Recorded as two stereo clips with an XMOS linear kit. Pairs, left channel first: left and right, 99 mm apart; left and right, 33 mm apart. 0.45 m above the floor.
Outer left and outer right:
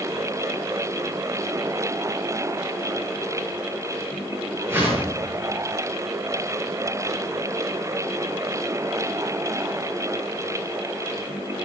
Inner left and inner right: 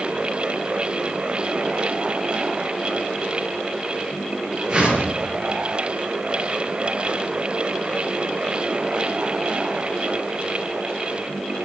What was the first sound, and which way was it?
A whoosh, 25° right (ahead or behind).